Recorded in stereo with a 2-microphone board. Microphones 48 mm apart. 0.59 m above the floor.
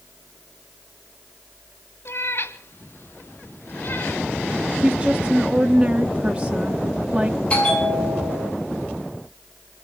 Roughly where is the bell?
Left.